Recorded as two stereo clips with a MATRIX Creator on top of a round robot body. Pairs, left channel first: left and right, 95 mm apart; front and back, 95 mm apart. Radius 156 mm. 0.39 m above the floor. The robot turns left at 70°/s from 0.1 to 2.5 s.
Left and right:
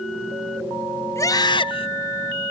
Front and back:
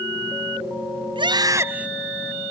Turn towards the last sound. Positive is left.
turn(degrees=60)